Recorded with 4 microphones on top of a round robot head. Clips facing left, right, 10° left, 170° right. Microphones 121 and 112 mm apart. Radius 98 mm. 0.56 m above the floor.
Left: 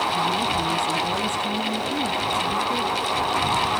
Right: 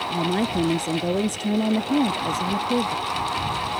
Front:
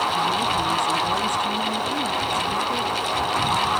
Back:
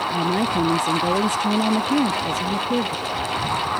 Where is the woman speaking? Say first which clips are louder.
Even, back 1 dB; 125° right.